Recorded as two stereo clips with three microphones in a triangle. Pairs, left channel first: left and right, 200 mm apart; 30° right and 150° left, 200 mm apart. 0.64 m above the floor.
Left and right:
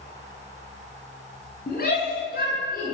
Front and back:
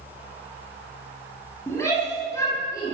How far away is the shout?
About 7 m.